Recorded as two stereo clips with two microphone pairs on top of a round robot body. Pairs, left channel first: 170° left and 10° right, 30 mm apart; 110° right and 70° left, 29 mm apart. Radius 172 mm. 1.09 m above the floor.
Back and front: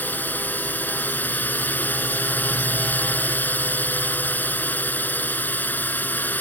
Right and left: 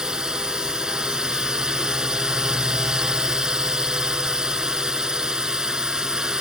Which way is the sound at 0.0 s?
140° left.